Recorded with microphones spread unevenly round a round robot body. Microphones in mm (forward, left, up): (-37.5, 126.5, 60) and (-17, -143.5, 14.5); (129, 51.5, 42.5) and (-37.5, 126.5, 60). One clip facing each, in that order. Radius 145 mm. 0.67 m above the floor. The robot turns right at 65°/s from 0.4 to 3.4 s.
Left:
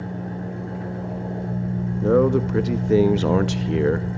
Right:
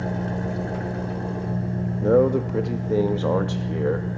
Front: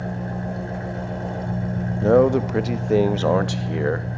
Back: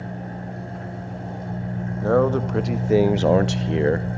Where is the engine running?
75° right, 2.5 m; by 4.2 s 120° left, 2.5 m.